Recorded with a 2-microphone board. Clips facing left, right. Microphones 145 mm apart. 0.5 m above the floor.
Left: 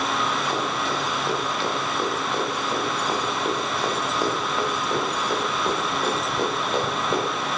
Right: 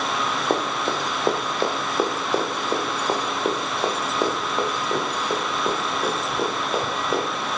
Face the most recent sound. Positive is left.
turn(degrees=-5)  # may be behind; listen again after turning